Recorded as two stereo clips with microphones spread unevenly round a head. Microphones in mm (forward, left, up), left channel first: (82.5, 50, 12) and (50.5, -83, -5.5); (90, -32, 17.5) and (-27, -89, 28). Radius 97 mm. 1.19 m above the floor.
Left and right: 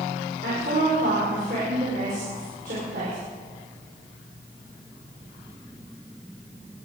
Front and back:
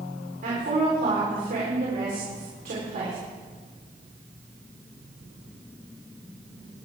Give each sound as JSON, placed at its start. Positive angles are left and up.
{"t": 0.4, "sound": "a woman speaking", "azimuth_deg": -150, "distance_m": 4.0}